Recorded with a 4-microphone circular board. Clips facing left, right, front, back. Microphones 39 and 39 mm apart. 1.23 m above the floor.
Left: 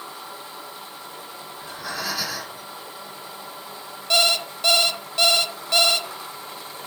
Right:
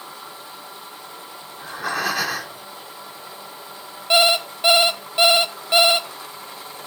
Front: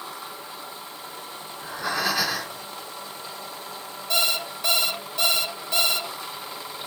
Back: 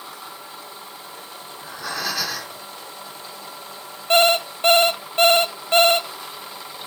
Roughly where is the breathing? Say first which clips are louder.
Right 7 dB, front 2 dB; right.